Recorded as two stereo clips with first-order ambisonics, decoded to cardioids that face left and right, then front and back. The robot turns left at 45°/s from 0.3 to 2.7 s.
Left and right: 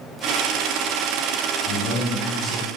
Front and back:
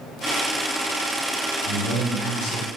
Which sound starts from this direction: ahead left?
A man speaking, at 1.6 s.